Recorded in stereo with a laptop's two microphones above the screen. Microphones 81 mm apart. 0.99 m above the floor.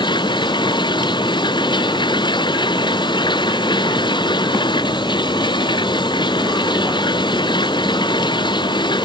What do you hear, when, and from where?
0.0 s running water: 70° left (ahead or behind)